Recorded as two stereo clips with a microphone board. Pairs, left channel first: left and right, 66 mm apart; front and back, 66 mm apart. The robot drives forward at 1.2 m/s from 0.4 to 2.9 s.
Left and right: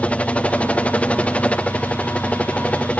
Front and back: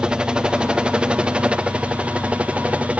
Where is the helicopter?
125° left; by 3.0 s 140° left.